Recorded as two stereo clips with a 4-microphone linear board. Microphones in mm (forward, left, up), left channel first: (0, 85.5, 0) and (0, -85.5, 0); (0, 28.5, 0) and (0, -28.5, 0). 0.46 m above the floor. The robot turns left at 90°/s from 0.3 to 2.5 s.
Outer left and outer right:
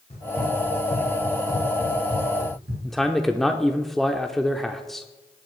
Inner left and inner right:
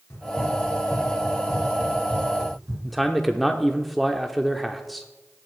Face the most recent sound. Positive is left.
turn(degrees=0)  # may be behind; listen again after turning